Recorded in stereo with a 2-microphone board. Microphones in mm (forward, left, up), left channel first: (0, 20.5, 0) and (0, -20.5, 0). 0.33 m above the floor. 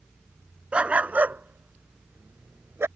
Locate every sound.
0.7 s a dog barking: 25° right (ahead or behind); by 2.9 s 75° right (ahead or behind)